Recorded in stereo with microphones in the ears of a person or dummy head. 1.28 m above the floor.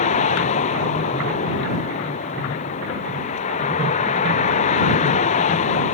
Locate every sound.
0.0 s a vehicle: 35° left (ahead or behind)